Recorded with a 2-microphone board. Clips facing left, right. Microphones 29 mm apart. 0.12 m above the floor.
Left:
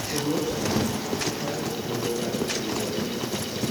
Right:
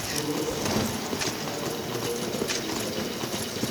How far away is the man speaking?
About 6.5 m.